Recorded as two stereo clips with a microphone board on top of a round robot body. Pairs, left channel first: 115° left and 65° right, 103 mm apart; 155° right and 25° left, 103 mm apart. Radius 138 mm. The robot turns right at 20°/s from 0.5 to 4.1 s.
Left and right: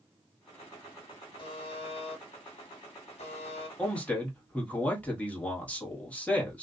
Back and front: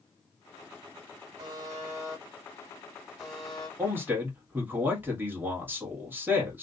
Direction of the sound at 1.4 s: 75° left.